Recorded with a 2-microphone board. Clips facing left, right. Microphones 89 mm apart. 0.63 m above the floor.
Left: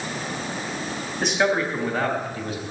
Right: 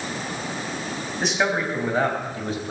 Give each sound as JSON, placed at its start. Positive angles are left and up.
{"t": 1.2, "sound": "a man speaking", "side_deg": 0, "distance_m": 3.5}